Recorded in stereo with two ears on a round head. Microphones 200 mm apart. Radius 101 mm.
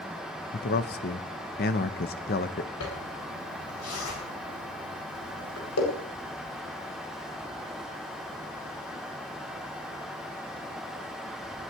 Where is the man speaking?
45° left (ahead or behind), 1.1 m.